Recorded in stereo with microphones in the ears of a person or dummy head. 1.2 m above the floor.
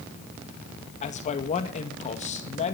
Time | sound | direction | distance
1.0 | a man speaking | 35° left (ahead or behind) | 2 m